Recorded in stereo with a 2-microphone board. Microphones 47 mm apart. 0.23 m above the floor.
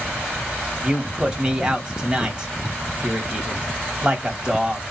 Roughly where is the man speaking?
Right.